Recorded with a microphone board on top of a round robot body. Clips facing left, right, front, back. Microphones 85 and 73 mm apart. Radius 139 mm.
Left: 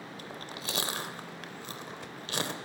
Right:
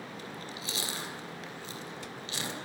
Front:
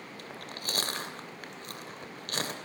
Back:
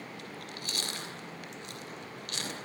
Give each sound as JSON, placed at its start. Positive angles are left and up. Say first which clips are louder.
{"t": 0.2, "sound": "chewing", "louder": "even, front 1 dB", "azimuth_deg": 50, "distance_m": 2.5}